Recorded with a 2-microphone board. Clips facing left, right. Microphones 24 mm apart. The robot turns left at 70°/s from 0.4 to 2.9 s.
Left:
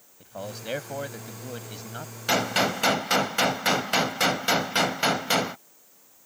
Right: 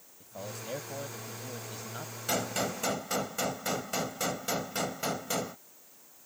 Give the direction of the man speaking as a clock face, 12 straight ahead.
8 o'clock.